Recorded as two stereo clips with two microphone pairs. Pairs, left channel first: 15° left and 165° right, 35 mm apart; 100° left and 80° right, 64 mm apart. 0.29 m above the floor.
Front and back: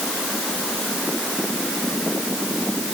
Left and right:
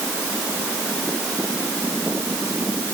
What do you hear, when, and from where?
Only background noise.